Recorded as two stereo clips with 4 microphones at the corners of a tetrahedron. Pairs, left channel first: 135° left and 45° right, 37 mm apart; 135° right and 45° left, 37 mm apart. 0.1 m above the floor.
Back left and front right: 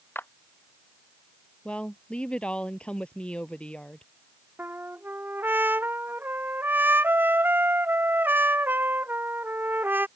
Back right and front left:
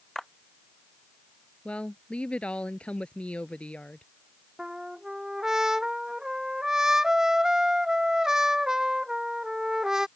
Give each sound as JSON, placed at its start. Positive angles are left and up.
{"t": 0.1, "sound": "a clap", "azimuth_deg": 145}
{"t": 1.6, "sound": "a woman speaking", "azimuth_deg": 180}
{"t": 4.6, "sound": "a trumpet", "azimuth_deg": -30}